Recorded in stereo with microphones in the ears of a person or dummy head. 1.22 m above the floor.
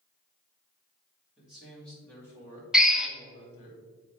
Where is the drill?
5° left (ahead or behind), 0.5 m.